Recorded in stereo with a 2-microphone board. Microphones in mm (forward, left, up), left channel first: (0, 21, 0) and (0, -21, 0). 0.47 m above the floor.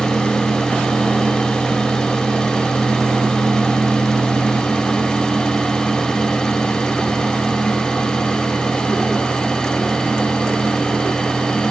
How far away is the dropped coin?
I don't hear a dropped coin.